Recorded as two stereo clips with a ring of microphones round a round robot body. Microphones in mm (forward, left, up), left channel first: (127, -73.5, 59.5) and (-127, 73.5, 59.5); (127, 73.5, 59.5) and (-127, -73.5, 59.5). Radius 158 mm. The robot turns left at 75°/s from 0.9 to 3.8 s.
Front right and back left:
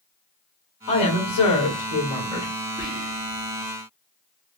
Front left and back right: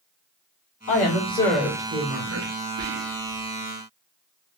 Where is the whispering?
130° right, 1.7 m; by 3.5 s straight behind, 1.7 m.